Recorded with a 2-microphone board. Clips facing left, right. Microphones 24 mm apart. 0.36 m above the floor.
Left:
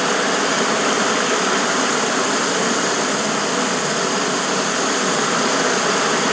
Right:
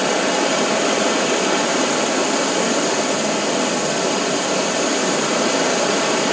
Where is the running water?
30° left (ahead or behind), 3 m.